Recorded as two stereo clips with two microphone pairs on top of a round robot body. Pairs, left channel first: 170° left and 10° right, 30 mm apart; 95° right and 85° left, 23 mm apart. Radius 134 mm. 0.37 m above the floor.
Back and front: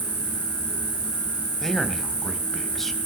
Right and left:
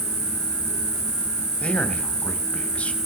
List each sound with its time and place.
0.0 s an insect: 25° left, 9 m
1.6 s a man speaking: 110° right, 3.5 m